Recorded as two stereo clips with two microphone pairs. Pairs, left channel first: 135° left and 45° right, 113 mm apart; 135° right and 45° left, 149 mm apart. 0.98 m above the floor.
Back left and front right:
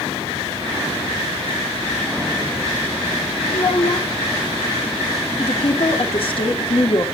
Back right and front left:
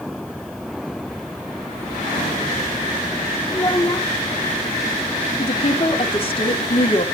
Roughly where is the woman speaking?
Behind.